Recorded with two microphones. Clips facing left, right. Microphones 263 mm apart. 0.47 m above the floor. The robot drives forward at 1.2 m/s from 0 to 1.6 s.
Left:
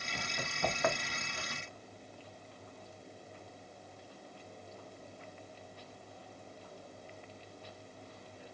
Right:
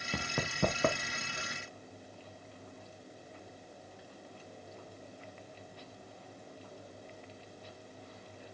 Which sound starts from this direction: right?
Running footsteps, at 0.1 s.